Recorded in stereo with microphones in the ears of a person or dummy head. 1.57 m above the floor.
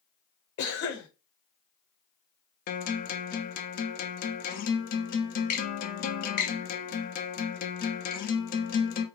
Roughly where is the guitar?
Left.